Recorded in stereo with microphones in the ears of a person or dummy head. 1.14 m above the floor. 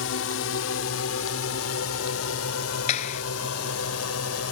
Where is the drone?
70° left (ahead or behind); by 4.5 s 80° left.